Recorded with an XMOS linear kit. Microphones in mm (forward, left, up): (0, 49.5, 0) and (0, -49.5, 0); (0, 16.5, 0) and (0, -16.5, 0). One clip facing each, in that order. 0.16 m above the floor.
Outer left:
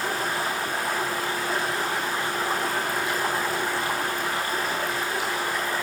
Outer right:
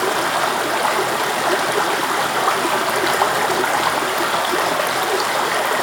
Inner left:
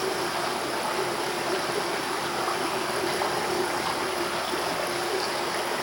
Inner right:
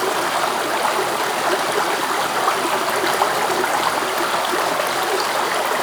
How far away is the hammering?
No hammering in this recording.